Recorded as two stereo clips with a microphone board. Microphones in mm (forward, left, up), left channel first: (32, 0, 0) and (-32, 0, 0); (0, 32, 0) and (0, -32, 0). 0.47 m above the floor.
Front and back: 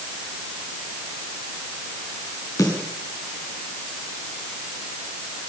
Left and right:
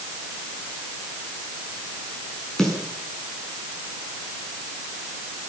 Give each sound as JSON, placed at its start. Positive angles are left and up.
{"t": 2.6, "sound": "a snare drum", "azimuth_deg": 10, "distance_m": 6.5}